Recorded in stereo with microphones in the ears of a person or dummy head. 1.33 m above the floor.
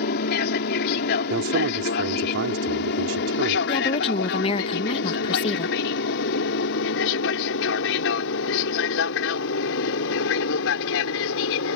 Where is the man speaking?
70° right (ahead or behind).